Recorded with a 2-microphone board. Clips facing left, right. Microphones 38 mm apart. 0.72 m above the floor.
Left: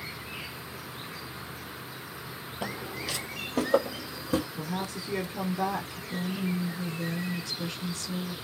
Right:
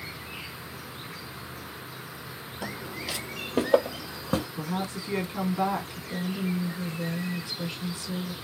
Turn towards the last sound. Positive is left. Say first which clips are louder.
# right 1 dB
turn(degrees=-15)  # may be behind; listen again after turning